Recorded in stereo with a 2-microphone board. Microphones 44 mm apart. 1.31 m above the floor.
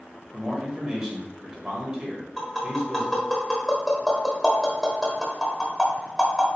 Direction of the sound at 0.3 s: 20° right (ahead or behind).